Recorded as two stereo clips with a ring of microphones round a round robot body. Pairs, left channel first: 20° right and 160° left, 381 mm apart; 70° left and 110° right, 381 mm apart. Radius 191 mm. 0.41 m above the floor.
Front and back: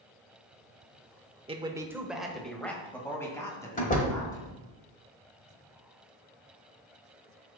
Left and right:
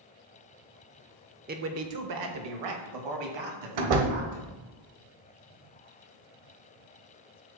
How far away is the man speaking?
About 0.9 m.